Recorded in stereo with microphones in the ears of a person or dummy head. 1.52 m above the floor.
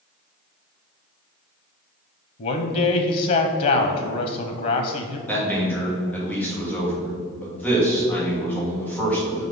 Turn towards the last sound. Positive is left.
turn(degrees=5)  # may be behind; listen again after turning